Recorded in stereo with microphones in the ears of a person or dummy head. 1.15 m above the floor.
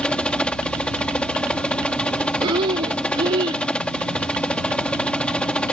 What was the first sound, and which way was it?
A helicopter, 5° left (ahead or behind).